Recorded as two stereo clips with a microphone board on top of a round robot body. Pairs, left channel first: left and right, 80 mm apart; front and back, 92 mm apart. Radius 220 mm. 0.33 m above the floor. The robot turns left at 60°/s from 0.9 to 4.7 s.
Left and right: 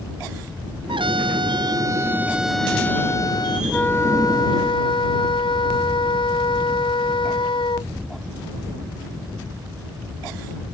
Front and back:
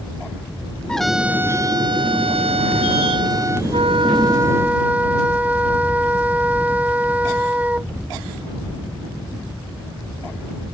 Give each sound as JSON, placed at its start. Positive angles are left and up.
{"t": 0.9, "sound": "a trumpet", "azimuth_deg": -80}
{"t": 3.7, "sound": "a flute", "azimuth_deg": 165}